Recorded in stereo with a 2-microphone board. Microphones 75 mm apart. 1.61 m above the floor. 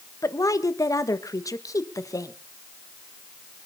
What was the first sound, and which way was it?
A woman speaking, 45° left (ahead or behind).